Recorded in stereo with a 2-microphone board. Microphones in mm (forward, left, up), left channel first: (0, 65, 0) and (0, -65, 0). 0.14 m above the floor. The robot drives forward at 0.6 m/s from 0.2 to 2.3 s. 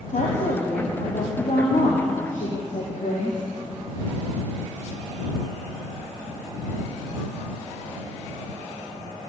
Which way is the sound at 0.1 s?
75° left (ahead or behind).